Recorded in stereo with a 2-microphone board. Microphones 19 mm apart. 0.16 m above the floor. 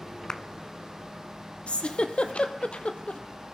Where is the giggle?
75° left (ahead or behind), 1.3 m.